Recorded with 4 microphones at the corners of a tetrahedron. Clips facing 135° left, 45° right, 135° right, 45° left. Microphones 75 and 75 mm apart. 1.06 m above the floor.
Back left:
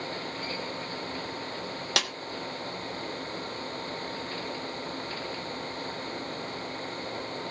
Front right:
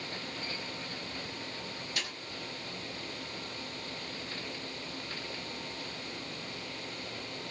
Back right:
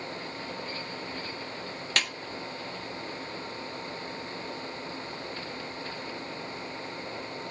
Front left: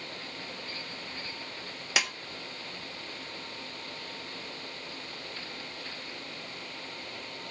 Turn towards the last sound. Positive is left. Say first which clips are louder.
# back left 10 dB, front left 1 dB
turn(degrees=125)